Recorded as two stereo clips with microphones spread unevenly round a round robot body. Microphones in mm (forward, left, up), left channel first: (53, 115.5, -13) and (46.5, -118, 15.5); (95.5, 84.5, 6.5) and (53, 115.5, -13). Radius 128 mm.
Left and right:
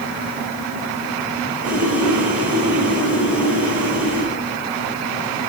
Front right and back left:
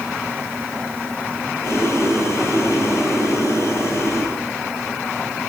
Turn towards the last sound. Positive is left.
turn(degrees=-120)